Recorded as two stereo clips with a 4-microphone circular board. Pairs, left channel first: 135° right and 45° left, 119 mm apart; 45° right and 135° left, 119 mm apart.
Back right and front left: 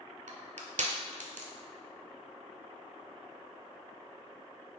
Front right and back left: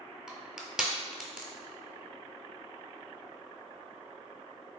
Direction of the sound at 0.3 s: 50° left.